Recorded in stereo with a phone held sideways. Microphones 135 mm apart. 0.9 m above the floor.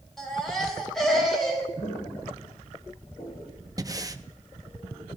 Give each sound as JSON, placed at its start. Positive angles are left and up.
{"t": 0.2, "sound": "a baby crying", "side_deg": 0, "distance_m": 3.5}
{"t": 1.8, "sound": "footsteps", "side_deg": 55, "distance_m": 4.0}
{"t": 3.8, "sound": "breathing", "side_deg": -25, "distance_m": 0.6}